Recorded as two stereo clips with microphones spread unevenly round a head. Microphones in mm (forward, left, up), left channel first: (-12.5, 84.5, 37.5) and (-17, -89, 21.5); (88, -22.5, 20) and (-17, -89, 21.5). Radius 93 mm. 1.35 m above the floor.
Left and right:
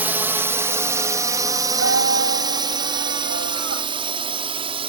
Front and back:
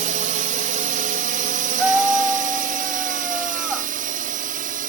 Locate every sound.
0.0 s a drone: 170° right; by 4.9 s 150° right
1.8 s a scream: 60° right